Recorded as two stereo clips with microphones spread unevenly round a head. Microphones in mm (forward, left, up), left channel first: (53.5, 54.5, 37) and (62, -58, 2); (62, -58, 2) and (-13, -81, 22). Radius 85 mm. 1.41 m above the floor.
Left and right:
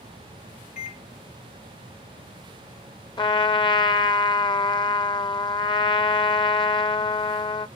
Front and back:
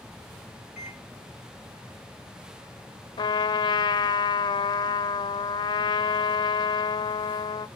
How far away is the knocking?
No knocking in this recording.